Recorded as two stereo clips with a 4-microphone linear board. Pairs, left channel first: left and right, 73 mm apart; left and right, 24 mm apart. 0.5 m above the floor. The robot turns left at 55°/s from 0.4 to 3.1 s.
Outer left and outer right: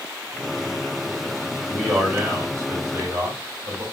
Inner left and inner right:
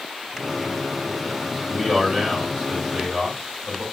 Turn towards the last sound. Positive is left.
turn(degrees=-80)